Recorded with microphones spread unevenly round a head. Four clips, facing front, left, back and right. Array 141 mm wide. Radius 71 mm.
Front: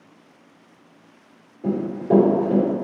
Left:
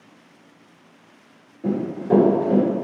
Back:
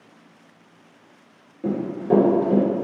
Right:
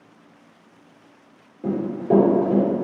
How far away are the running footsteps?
About 1.7 m.